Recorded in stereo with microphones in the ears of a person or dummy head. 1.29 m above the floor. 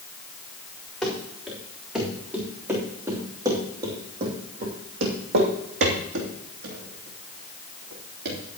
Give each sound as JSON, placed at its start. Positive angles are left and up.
{"t": 1.0, "sound": "running footsteps", "side_deg": 5, "distance_m": 4.5}